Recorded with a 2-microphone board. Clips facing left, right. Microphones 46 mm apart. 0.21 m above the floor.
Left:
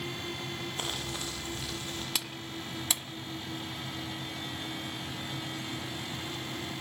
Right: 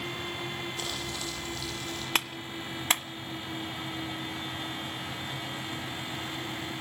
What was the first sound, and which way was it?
Crumpling, 35° left (ahead or behind).